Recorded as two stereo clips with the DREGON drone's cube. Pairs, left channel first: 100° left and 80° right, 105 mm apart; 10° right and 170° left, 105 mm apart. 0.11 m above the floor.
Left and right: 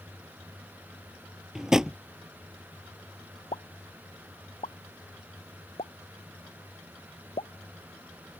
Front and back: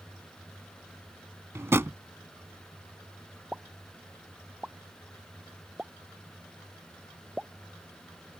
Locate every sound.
1.6 s a drawer: 155° right
3.5 s a pop: 90° left